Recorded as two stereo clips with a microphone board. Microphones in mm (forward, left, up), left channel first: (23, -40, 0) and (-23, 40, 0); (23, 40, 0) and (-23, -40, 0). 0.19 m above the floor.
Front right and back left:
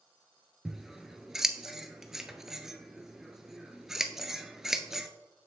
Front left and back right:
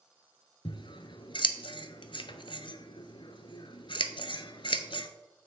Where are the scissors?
35° left, 0.5 m.